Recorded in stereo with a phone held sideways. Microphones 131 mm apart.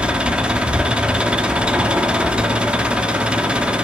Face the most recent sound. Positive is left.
turn(degrees=-10)  # may be behind; listen again after turning